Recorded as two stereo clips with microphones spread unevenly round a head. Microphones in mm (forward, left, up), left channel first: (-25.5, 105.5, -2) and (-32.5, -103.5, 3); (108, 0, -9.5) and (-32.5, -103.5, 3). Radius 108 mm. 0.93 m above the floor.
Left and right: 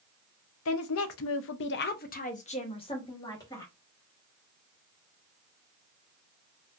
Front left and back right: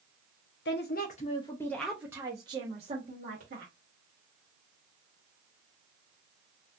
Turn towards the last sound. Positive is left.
turn(degrees=165)